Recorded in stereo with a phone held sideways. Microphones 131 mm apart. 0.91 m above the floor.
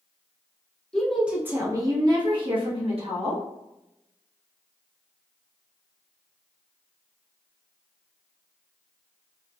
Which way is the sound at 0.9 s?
5° left (ahead or behind).